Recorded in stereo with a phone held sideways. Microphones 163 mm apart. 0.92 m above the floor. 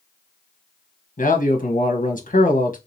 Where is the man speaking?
55° left (ahead or behind), 0.9 m.